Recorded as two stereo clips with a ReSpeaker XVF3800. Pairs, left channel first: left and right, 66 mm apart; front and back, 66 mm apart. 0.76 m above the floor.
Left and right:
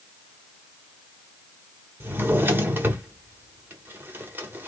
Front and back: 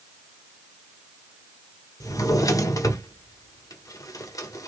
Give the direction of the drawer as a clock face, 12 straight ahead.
1 o'clock.